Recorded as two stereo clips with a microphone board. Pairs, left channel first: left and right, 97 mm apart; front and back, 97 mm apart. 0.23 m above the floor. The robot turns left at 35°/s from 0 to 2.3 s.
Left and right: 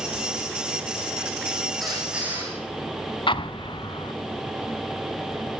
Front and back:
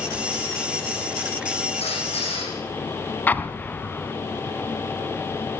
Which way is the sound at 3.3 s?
70° left.